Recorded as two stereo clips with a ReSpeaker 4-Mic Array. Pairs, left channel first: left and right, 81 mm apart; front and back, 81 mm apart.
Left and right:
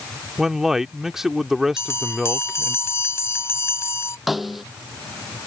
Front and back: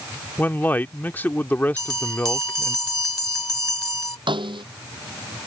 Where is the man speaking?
10° right.